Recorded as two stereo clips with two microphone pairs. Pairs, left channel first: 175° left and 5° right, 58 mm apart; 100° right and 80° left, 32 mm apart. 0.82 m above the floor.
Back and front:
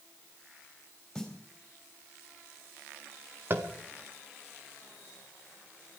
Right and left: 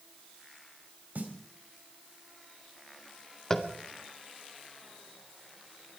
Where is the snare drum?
90° left, 2.5 m.